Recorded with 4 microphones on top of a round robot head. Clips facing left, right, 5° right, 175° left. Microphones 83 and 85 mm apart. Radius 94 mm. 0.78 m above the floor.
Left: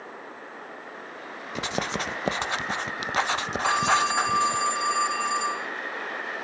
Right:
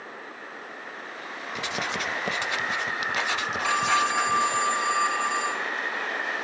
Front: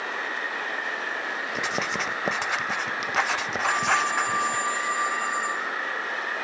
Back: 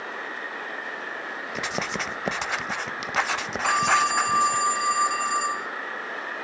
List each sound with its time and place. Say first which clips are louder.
1.6 s writing: left 2 dB, even; 85° left, 0.6 m
3.6 s a phone ringing: left 1 dB, back 3 dB; 160° left, 3 m